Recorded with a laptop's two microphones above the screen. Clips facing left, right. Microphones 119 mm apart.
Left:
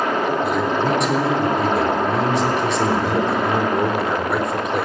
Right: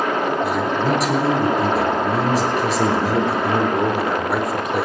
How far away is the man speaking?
About 3.5 m.